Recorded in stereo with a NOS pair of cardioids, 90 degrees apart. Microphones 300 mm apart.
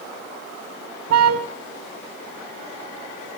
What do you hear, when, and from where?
1.1 s a car horn: 60° right, 3.5 m